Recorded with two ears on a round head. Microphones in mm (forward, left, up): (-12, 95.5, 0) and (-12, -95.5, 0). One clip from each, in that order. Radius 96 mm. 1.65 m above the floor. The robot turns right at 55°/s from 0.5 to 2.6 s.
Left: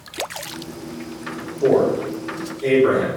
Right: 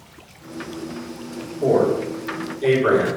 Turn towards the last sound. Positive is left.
turn(degrees=-50)  # may be behind; listen again after turning